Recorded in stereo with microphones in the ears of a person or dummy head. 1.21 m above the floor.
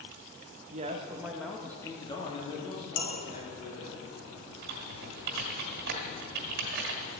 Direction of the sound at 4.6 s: 55° right (ahead or behind).